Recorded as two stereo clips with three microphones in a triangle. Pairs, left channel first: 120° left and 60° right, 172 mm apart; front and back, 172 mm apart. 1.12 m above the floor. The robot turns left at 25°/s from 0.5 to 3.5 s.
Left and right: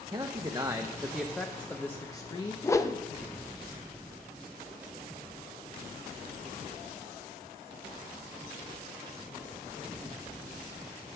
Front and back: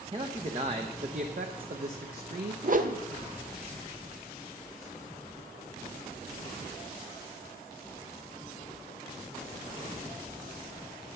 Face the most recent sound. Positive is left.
turn(degrees=170)